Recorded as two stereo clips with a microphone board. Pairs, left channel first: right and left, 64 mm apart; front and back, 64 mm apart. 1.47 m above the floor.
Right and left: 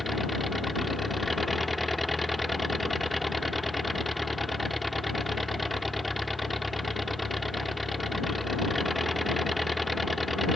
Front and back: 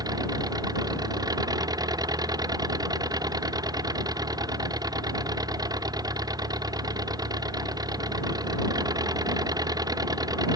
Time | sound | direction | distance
0.0 | an engine running | straight behind | ?